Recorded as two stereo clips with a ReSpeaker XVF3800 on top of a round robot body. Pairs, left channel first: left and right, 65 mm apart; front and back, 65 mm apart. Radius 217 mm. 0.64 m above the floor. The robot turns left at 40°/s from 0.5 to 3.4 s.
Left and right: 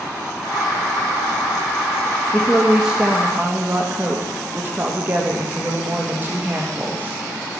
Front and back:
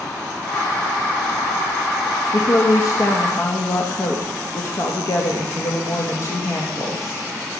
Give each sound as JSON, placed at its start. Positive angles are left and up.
{"t": 2.3, "sound": "a woman speaking", "azimuth_deg": 10, "distance_m": 1.8}